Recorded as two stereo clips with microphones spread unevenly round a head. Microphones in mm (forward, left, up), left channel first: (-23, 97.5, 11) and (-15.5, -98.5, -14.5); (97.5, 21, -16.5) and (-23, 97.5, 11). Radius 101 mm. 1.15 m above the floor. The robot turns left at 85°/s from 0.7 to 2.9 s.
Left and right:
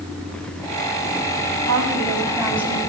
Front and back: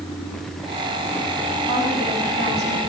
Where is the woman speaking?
110° right, 6.5 m; by 2.8 s 155° left, 6.5 m.